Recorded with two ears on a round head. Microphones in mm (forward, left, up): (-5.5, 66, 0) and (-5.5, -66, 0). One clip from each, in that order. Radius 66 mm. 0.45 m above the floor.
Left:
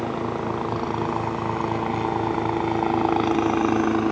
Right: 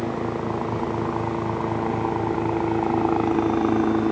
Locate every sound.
0.0 s a helicopter: 55° left (ahead or behind); by 4.1 s 60° left (ahead or behind)